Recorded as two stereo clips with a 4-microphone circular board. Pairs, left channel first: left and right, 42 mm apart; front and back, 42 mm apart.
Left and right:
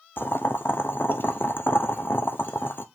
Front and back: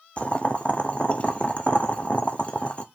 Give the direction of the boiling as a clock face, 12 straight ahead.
10 o'clock.